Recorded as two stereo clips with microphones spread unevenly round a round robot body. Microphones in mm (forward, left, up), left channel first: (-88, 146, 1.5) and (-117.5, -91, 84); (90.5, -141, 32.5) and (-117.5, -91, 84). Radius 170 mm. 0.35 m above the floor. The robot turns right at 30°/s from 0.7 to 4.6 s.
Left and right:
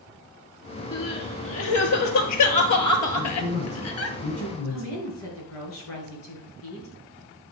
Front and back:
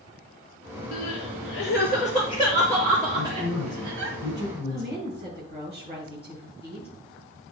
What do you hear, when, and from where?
0.9 s crying: 20° left, 1.3 m; by 4.2 s 115° left, 1.3 m
3.1 s a man speaking: 5° left, 6 m; by 5.0 s 45° left, 6 m
4.7 s a woman speaking: 95° left, 4.5 m